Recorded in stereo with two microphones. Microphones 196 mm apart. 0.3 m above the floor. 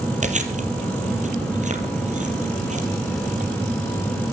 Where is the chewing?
40° right (ahead or behind), 3 m.